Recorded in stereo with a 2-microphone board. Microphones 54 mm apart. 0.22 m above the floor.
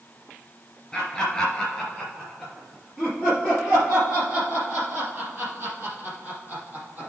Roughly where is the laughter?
Centre.